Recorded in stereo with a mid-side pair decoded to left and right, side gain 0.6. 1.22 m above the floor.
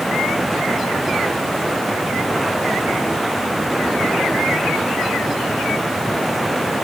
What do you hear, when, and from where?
0.0 s running water: 10° right